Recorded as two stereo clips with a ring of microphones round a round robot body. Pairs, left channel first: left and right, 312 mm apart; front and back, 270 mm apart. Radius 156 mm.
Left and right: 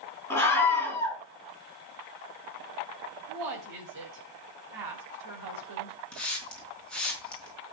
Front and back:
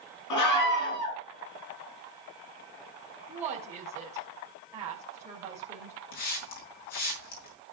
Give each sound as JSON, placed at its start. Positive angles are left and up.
{"t": 0.3, "sound": "a scream", "azimuth_deg": 5, "distance_m": 5.5}
{"t": 3.3, "sound": "a woman speaking", "azimuth_deg": -100, "distance_m": 2.5}
{"t": 6.1, "sound": "a hiss", "azimuth_deg": 5, "distance_m": 4.5}